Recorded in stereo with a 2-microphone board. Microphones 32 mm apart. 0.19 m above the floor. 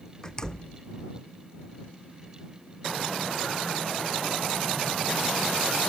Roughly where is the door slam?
Left.